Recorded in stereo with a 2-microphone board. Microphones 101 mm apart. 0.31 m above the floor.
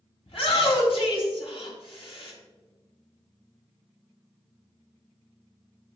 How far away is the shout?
About 2.5 m.